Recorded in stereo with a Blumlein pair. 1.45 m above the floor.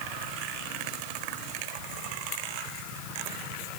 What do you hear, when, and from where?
Only background noise.